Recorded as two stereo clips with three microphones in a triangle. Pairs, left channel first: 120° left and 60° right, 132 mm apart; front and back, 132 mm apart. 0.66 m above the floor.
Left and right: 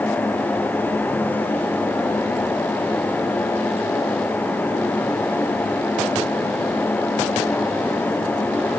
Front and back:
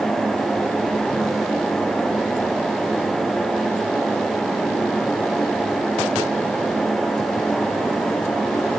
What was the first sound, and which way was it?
Only background noise.